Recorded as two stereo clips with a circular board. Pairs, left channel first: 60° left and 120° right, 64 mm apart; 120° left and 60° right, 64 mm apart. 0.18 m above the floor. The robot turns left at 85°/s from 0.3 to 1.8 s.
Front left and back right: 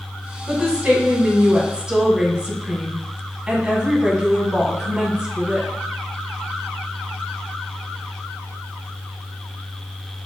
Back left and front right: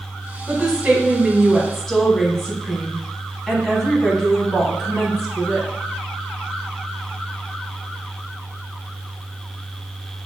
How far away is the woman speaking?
About 1.0 m.